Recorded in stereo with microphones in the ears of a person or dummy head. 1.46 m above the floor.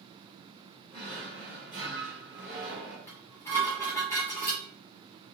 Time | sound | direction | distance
0.9 | a drawer | 15° right (ahead or behind) | 1.1 m
3.1 | dishes clattering | 15° left (ahead or behind) | 0.8 m